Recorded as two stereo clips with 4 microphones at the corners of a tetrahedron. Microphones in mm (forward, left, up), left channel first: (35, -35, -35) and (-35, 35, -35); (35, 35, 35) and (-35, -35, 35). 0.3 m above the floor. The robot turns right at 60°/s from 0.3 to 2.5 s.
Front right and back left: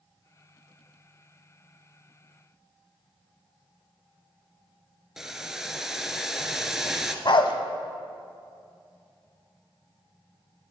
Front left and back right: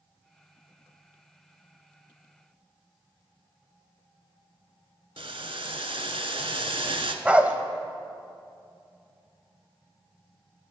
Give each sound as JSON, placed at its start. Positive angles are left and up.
{"t": 5.2, "sound": "boiling", "azimuth_deg": -140, "distance_m": 0.6}
{"t": 7.2, "sound": "a dog barking", "azimuth_deg": -60, "distance_m": 0.5}